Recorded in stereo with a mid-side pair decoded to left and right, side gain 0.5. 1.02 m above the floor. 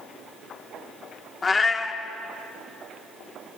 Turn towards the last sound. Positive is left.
turn(degrees=35)